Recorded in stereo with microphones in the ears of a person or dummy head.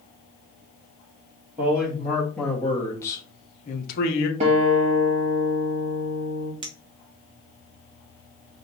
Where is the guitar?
35° right (ahead or behind), 1.8 m.